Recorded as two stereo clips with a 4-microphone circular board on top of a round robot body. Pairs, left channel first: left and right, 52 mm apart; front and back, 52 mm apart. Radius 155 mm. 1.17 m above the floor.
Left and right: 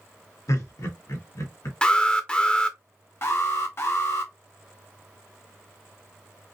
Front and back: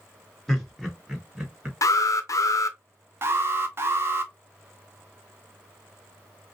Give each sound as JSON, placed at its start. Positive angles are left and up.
{"t": 0.5, "sound": "laughter", "azimuth_deg": 85, "distance_m": 1.9}
{"t": 1.8, "sound": "an alarm", "azimuth_deg": 20, "distance_m": 0.6}
{"t": 3.2, "sound": "an alarm", "azimuth_deg": 135, "distance_m": 0.6}